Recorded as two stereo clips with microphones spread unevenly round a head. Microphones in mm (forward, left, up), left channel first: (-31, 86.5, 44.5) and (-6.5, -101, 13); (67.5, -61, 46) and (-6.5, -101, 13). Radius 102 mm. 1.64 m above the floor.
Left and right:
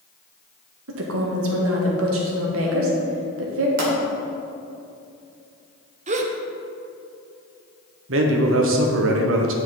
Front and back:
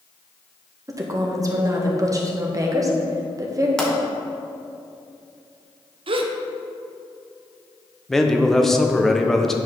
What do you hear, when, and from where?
0.9 s a woman speaking: 100° right, 1.5 m
3.8 s a pop: 35° right, 2.0 m
6.1 s a gasp: 135° right, 0.6 m
8.1 s a man speaking: 55° right, 1.0 m